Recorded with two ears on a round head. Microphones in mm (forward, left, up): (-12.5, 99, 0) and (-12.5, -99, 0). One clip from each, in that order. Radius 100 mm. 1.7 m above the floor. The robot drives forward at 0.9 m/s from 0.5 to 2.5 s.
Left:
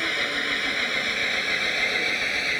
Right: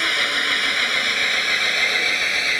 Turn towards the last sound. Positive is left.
turn(degrees=-40)  # may be behind; listen again after turning